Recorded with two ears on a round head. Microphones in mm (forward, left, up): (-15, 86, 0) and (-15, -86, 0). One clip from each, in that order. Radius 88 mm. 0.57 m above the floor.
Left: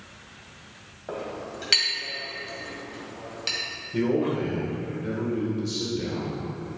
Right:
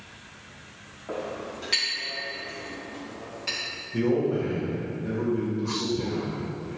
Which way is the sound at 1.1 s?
80° left.